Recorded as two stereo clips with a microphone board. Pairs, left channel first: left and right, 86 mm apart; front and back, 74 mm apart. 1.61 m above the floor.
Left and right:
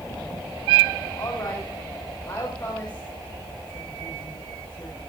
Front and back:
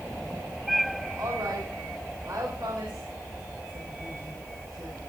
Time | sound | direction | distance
1.2 | a woman speaking | 130° left | 6 m